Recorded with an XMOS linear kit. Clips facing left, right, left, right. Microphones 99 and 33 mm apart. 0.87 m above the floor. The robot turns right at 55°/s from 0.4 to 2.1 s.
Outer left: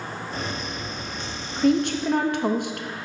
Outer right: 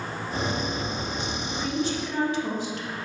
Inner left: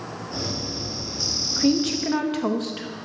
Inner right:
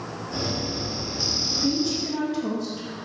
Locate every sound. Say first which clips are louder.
1.6 s a woman speaking: outer left 9 dB, inner left 5 dB; 55° left (ahead or behind), 0.6 m; by 2.9 s 60° left (ahead or behind), 0.6 m